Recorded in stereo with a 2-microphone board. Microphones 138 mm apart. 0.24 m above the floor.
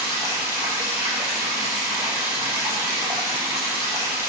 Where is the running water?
20° right (ahead or behind), 4.5 m.